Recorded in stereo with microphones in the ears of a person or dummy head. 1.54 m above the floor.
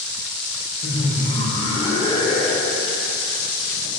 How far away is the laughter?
About 1.2 m.